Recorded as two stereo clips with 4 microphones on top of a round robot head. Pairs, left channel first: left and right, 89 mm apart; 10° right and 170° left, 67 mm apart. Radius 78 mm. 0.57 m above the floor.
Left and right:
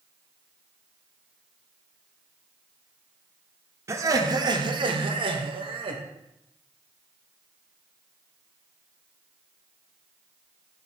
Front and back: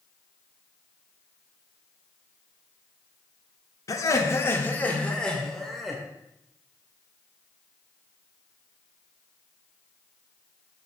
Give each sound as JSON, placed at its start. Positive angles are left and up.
{"t": 3.9, "sound": "laughter", "azimuth_deg": -35, "distance_m": 1.4}